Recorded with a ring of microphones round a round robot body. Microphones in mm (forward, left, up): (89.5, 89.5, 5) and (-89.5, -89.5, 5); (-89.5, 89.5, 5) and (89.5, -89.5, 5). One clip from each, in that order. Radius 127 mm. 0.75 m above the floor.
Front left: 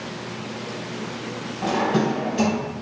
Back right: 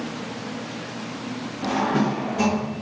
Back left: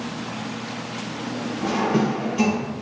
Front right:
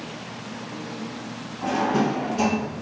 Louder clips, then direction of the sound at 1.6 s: Front left 1 dB, even; 55° left.